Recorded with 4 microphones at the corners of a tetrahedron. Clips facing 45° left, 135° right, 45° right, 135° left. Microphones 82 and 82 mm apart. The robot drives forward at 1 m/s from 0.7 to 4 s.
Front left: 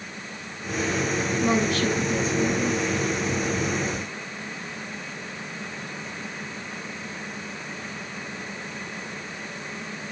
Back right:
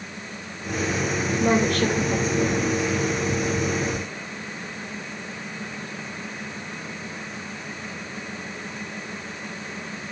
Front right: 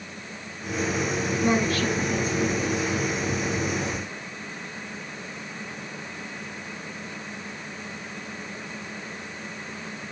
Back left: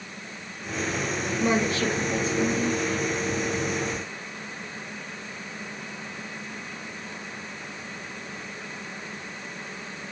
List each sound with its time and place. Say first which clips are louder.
1.4 s a woman speaking: back right 3 dB, even; 160° right, 2.5 m; by 2.8 s 165° right, 4 m